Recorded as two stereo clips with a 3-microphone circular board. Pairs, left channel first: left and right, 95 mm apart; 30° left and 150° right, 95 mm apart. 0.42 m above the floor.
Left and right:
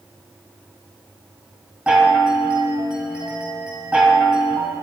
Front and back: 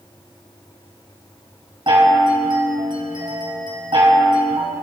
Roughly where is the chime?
Behind.